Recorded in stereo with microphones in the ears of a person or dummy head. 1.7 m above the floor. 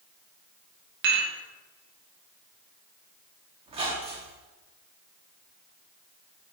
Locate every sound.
1.0 s dishes clattering: 50° right (ahead or behind), 1.3 m
3.7 s a squeak: 35° right (ahead or behind), 1.4 m